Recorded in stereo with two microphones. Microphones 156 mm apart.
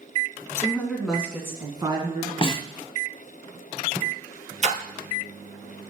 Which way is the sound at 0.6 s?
15° left (ahead or behind).